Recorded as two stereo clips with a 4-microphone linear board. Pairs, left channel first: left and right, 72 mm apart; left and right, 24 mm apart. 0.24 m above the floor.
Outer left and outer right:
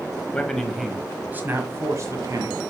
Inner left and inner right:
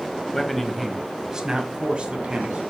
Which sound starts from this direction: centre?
A man speaking, at 0.3 s.